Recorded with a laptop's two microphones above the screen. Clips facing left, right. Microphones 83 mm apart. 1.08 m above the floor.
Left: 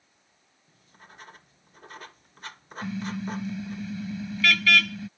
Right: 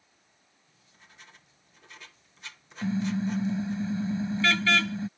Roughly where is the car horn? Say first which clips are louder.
Right 4 dB; right.